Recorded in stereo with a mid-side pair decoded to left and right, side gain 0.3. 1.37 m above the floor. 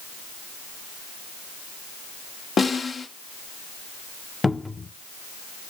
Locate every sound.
2.6 s a snare drum: 65° left, 2.5 m
4.4 s a cupboard door: 30° left, 1.0 m